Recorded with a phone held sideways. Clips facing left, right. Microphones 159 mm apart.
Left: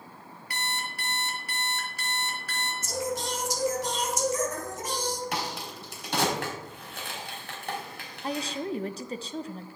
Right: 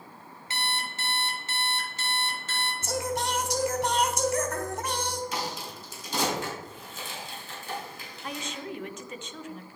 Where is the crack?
60° left (ahead or behind), 3 m.